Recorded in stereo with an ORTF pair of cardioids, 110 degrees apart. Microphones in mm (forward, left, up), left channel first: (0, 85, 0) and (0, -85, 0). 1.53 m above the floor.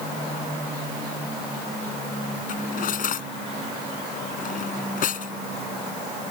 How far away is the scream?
No scream in this recording.